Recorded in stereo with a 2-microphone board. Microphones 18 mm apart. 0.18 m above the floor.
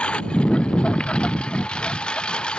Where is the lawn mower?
80° left; by 2.6 s 60° left (ahead or behind).